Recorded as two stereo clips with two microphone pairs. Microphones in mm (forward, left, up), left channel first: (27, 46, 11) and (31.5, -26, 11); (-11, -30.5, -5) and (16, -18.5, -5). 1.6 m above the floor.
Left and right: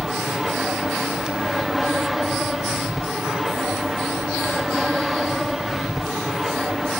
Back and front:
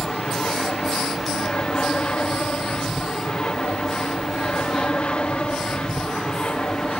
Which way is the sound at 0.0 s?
170° right.